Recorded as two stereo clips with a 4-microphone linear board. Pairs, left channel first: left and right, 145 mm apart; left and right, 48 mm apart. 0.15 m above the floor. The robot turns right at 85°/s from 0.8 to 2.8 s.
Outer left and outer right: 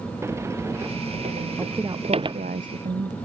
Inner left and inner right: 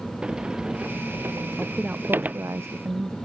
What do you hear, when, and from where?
0.2 s a sliding door: 20° right (ahead or behind); by 2.4 s 25° right (ahead or behind)
1.6 s a woman speaking: 175° right; by 3.1 s 70° right